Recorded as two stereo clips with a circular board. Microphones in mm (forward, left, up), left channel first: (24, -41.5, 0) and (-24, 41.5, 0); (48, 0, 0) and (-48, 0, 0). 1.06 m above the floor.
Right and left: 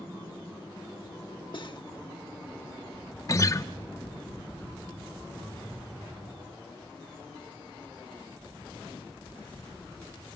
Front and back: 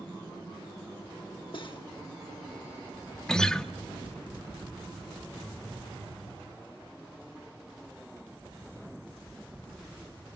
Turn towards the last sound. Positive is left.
turn(degrees=-80)